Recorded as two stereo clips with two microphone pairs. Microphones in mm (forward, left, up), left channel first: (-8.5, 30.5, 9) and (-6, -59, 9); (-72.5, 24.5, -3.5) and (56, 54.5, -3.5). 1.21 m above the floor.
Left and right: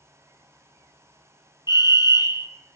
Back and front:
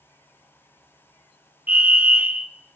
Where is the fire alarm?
90° left, 1.4 m.